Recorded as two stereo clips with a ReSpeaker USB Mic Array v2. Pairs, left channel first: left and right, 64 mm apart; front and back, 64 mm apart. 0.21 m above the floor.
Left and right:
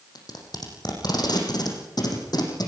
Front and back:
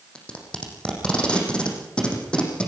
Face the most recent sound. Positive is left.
turn(degrees=75)